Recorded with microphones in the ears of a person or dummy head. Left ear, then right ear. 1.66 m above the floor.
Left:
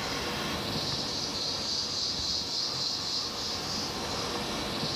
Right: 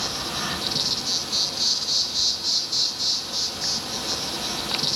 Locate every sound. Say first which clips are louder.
0.0 s an insect: right 5 dB; 65° right (ahead or behind), 1.8 m